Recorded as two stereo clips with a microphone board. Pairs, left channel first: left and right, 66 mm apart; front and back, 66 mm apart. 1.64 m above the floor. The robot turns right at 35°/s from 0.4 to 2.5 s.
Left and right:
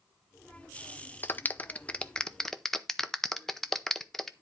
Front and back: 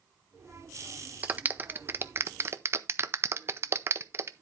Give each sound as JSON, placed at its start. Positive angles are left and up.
{"t": 1.2, "sound": "a clap", "azimuth_deg": 125, "distance_m": 0.6}